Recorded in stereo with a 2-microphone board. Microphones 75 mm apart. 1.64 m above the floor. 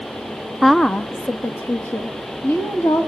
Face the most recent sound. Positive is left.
turn(degrees=35)  # may be behind; listen again after turning